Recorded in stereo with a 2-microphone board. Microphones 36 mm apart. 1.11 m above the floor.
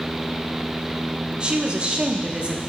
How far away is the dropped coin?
I don't hear a dropped coin.